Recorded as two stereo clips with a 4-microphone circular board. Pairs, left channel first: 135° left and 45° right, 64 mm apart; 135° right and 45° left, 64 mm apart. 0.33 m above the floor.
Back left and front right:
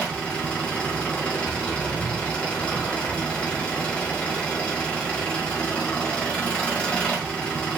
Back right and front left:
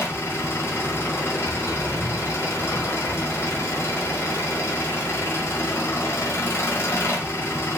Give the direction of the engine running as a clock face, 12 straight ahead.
5 o'clock.